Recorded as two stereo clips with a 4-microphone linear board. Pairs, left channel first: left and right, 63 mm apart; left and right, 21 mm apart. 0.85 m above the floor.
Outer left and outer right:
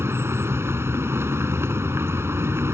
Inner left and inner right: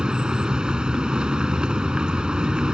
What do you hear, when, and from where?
0.0 s a vehicle: 45° right (ahead or behind)